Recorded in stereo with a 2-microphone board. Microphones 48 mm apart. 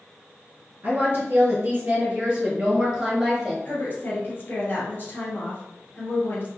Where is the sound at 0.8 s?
35° right (ahead or behind), 1.5 m; by 3.5 s 5° left (ahead or behind), 1.4 m.